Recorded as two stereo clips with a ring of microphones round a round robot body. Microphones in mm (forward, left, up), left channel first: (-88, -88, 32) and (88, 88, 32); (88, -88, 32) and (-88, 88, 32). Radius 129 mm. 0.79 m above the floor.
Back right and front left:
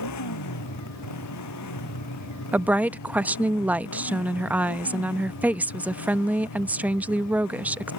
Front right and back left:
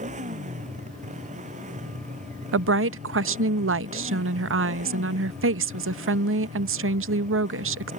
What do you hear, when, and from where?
0.0 s a motorcycle: 160° right
2.5 s a woman speaking: 130° left